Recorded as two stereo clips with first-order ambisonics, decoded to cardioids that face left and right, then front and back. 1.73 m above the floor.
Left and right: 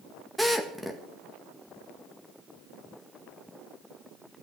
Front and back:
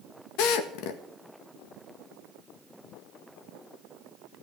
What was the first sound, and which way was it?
A drill, straight ahead.